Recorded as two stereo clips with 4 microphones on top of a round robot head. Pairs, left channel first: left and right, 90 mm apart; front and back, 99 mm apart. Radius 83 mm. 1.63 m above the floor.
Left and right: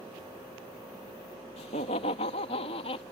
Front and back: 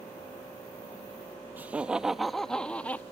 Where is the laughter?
110° left; by 3.0 s 75° left.